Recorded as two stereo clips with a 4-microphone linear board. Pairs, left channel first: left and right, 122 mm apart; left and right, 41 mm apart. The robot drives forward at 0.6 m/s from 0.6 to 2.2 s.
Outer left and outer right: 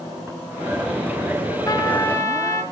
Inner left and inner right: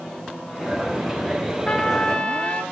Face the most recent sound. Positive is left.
turn(degrees=25)  # may be behind; listen again after turning